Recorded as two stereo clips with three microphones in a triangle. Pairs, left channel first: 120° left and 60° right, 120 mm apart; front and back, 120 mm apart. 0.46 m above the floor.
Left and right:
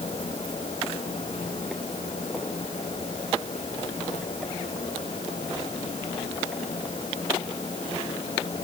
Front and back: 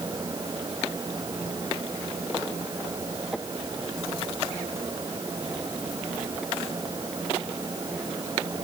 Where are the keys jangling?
I don't hear keys jangling.